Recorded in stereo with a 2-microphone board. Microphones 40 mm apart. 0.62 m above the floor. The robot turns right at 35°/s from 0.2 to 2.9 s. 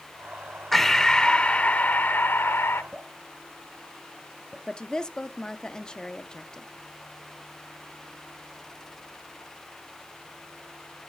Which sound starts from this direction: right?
Dripping, at 2.9 s.